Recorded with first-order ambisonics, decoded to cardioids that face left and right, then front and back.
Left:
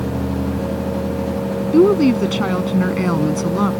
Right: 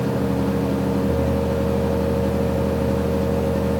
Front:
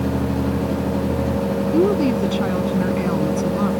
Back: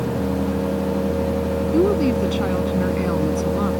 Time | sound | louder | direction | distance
1.7 | a woman speaking | left 8 dB, even | 90° left | ?